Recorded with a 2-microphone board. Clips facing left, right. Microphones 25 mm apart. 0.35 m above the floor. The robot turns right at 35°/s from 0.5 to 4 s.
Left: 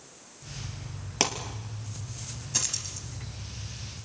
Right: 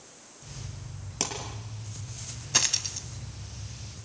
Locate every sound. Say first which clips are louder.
1.2 s a pop: left 6 dB; 30° left (ahead or behind), 2.5 m; by 1.3 s 35° left (ahead or behind), 2.5 m
2.5 s a dropped coin: right 6 dB; 30° right (ahead or behind), 1.1 m; by 3.1 s 50° right (ahead or behind), 1.1 m